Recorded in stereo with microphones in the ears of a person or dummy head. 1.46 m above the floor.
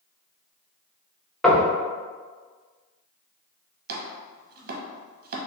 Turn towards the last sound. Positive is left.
turn(degrees=-45)  # may be behind; listen again after turning